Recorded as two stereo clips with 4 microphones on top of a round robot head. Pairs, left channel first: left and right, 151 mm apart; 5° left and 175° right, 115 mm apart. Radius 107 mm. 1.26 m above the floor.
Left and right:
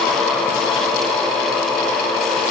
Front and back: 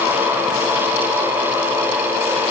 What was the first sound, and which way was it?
Only background noise.